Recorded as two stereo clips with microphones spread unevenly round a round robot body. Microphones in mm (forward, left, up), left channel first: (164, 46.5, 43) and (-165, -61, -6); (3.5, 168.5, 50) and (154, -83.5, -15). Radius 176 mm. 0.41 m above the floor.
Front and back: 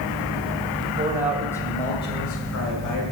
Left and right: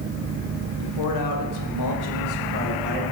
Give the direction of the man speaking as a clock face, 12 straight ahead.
7 o'clock.